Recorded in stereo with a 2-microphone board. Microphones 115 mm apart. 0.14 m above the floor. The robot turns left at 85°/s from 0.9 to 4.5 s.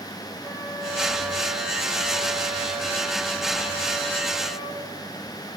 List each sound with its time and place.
0.4 s a flute: 30° left, 4 m; by 4.8 s 80° left, 4 m